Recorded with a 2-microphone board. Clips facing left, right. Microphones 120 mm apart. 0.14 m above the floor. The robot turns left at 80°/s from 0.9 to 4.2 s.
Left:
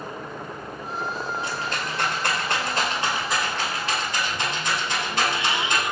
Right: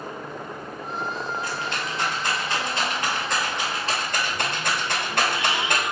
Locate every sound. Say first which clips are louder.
1.4 s a rattle: even; 20° left (ahead or behind), 1.2 m; by 5.8 s 55° right (ahead or behind), 1.2 m